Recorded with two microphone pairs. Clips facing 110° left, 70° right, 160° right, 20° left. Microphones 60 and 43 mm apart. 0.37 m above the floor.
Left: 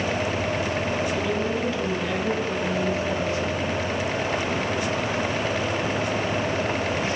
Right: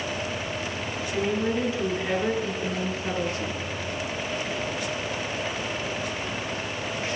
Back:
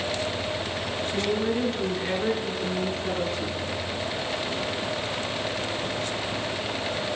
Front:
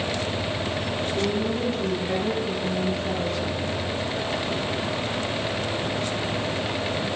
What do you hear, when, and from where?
1.1 s a woman speaking: 140° right, 4.5 m; by 3.6 s 120° right, 4.5 m